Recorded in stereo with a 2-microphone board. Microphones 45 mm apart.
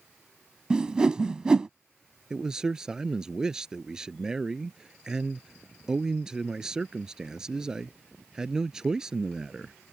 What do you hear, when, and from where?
0.7 s a whoosh: 20° right (ahead or behind)
2.3 s a man speaking: 15° right (ahead or behind)